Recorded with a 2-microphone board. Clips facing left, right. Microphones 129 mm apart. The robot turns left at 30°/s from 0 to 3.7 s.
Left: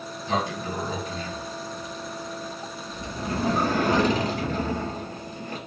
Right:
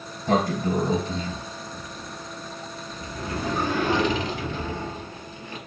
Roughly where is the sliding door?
Behind right.